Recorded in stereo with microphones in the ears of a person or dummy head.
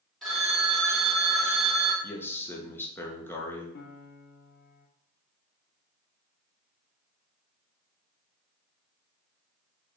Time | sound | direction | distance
0.2 | a phone ringing | centre (ahead or behind) | 1.8 m
2.0 | a man speaking | 10° left (ahead or behind) | 0.9 m
3.8 | a piano | 55° left (ahead or behind) | 0.7 m